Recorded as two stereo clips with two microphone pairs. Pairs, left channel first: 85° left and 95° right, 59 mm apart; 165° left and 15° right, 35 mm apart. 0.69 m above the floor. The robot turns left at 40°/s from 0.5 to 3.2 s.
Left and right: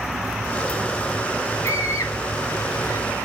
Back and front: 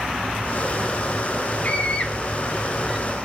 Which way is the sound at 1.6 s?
115° left.